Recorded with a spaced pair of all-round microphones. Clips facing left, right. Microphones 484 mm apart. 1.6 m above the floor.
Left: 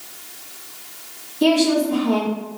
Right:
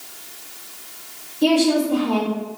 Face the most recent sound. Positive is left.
turn(degrees=80)